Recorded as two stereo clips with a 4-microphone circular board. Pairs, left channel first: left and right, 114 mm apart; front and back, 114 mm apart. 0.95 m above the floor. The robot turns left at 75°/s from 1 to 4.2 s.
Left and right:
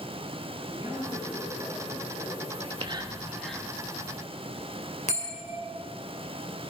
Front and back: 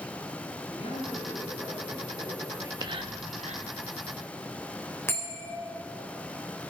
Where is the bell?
70° left, 4 m.